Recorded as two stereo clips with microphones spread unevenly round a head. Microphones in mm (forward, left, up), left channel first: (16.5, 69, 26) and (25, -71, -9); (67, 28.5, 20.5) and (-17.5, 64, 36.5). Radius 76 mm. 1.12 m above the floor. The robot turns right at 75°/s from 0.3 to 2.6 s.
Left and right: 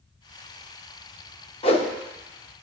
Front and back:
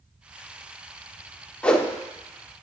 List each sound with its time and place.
1.6 s a whoosh: 60° left, 1.1 m; by 1.9 s 75° left, 1.1 m